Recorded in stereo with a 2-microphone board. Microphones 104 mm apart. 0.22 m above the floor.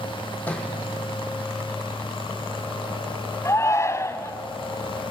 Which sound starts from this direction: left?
A shout, at 3.5 s.